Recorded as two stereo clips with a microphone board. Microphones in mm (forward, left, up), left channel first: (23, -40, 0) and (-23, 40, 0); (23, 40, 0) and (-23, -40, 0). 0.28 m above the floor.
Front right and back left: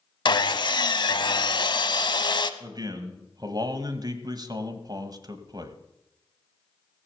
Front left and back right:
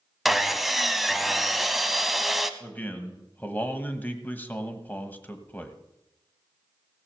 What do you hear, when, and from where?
0.2 s sawing: 35° right, 0.6 m
2.6 s a man speaking: 125° left, 1.3 m